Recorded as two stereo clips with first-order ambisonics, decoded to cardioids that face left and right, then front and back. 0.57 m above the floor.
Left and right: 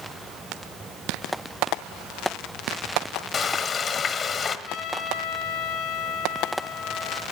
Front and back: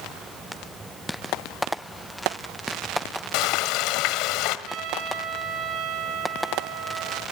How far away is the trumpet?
About 3 m.